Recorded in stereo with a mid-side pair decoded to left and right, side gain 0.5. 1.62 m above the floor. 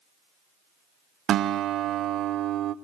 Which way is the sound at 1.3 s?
60° right.